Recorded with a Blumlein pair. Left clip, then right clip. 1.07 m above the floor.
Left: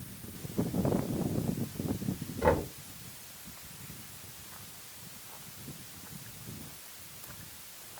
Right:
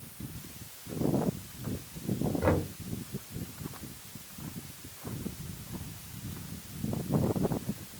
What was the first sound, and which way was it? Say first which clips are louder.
Knocking: left 3 dB; 5° left.